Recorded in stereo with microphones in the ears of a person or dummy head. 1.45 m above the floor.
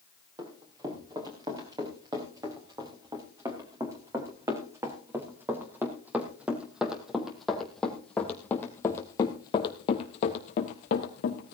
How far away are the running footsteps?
About 6 m.